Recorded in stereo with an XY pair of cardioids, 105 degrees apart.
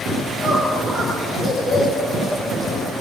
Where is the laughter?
30° left, 10 m.